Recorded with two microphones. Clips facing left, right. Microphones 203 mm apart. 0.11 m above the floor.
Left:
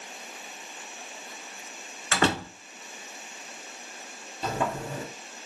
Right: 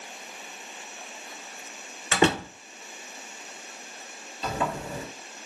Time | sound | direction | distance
2.1 | a door slam | 20° right (ahead or behind) | 0.9 m
4.4 | a sliding door | 45° left (ahead or behind) | 1.9 m